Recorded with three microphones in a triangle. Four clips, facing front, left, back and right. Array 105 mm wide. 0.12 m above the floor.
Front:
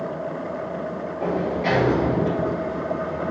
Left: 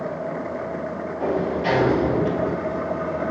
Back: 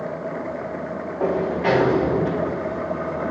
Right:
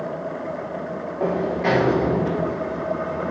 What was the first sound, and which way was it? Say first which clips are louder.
A sliding door: right 1 dB, back 3 dB; 155° right.